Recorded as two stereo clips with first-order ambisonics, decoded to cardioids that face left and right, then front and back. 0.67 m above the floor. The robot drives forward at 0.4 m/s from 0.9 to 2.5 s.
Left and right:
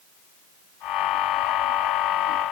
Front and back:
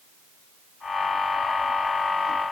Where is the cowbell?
No cowbell in this recording.